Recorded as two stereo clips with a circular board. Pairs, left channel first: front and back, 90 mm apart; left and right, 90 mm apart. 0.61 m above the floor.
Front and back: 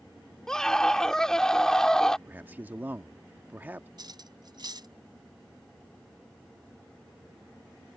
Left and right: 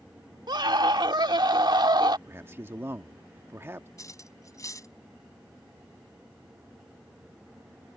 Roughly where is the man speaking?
Behind right.